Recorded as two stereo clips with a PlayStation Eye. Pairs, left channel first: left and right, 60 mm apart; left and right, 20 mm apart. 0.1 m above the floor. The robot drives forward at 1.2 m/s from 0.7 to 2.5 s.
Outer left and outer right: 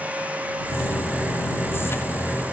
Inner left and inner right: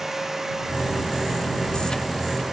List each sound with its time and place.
Only background noise.